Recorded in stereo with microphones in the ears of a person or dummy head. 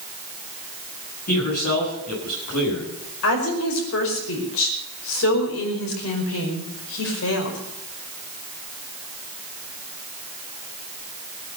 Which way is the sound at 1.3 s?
50° left (ahead or behind).